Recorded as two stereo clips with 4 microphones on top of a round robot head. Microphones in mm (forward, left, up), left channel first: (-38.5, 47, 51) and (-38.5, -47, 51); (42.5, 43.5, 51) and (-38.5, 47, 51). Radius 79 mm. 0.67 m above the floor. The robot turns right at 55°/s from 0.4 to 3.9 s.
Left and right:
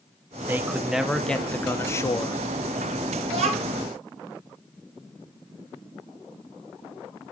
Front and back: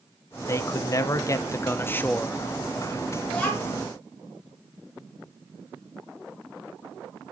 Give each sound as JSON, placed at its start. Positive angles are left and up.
{"t": 0.5, "sound": "a man speaking", "azimuth_deg": -35, "distance_m": 0.6}
{"t": 3.3, "sound": "a child speaking", "azimuth_deg": -90, "distance_m": 1.5}